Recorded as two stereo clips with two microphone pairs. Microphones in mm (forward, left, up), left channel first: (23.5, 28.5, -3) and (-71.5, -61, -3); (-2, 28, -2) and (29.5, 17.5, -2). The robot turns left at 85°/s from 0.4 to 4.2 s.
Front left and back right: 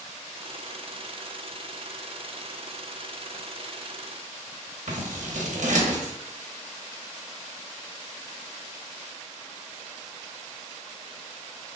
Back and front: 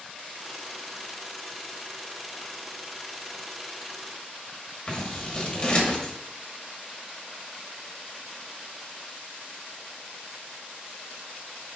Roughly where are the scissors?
Behind right.